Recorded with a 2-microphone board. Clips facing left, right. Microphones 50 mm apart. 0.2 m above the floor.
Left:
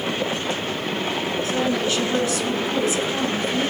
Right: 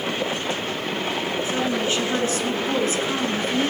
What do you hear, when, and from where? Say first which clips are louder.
1.4 s a woman speaking: left 2 dB; 20° right (ahead or behind), 2 m; by 3.7 s 50° right (ahead or behind), 2.5 m